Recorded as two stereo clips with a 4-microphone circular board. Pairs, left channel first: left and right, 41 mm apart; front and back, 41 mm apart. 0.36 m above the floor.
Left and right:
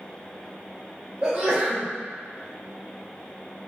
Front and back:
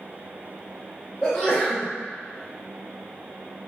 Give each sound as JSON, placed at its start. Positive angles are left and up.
{"t": 1.2, "sound": "a sneeze", "azimuth_deg": -80, "distance_m": 1.1}